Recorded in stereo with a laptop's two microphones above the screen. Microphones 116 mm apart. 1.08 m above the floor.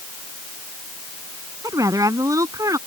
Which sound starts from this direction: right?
A woman speaking, at 1.6 s.